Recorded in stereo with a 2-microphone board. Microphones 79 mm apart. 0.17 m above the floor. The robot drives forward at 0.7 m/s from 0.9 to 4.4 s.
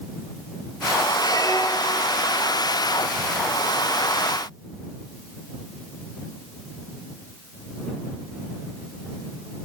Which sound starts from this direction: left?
A squeak, at 1.2 s.